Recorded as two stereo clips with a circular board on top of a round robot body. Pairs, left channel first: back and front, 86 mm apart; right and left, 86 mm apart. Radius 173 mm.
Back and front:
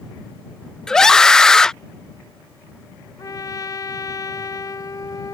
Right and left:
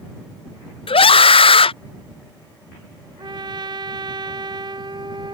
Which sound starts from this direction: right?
A scream, at 0.9 s.